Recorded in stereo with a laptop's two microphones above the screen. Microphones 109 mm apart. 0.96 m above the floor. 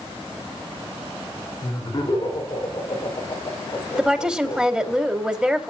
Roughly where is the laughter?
Left.